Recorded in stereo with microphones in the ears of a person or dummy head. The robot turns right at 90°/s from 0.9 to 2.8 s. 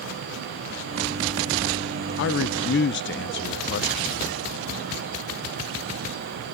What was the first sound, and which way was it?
A man speaking, 65° left.